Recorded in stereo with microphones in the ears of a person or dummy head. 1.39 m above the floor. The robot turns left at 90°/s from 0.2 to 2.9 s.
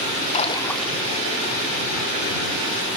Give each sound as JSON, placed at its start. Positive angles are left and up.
{"t": 0.3, "sound": "a splash", "azimuth_deg": 40}